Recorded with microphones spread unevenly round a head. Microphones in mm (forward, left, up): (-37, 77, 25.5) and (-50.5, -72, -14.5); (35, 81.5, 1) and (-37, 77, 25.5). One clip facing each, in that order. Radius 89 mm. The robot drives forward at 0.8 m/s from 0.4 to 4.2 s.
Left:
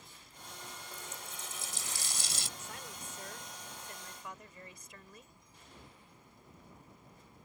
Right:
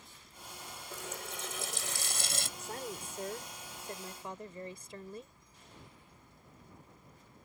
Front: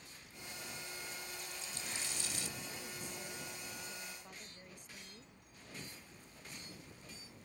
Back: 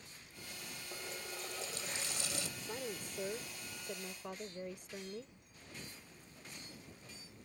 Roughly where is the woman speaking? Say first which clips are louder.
Right 7 dB, back 4 dB; behind right.